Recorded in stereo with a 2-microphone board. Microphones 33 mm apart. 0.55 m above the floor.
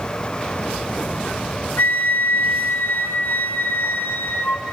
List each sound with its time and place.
1.8 s a flute: 75° left (ahead or behind), 0.9 m